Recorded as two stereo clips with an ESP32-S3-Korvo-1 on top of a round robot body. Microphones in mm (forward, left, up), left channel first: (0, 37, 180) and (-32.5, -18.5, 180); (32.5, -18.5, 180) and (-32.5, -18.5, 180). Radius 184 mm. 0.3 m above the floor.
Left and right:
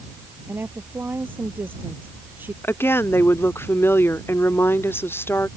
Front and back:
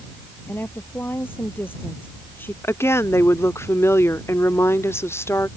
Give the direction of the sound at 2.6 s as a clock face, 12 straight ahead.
11 o'clock.